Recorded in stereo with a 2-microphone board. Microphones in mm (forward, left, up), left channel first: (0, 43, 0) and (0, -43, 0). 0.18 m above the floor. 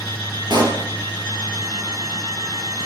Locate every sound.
0.5 s a pop: 60° right (ahead or behind), 3 m